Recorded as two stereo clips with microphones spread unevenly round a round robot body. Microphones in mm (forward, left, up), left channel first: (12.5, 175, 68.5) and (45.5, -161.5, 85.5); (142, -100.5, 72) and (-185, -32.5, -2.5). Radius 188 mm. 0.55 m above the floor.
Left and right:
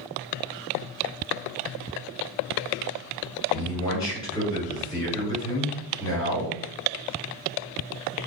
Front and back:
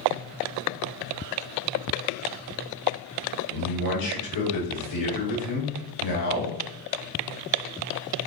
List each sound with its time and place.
3.5 s a man speaking: 20° left, 1.6 m